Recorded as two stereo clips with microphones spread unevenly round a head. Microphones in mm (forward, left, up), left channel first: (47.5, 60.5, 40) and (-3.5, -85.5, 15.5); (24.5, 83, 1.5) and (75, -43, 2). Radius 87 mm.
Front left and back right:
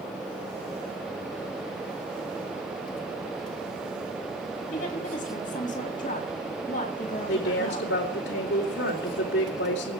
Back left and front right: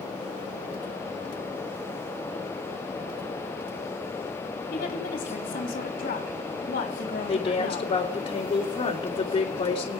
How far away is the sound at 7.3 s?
About 3 m.